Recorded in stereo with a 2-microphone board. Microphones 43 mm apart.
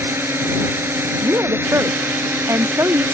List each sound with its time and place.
0.0 s a drone: 65° right (ahead or behind)
1.2 s a woman speaking: 85° right